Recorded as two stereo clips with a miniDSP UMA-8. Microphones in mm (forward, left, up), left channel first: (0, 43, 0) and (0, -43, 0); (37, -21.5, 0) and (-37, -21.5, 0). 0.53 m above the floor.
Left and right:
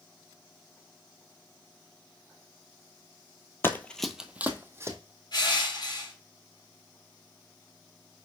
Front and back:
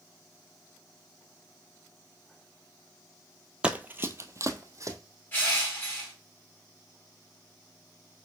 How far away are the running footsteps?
About 0.6 m.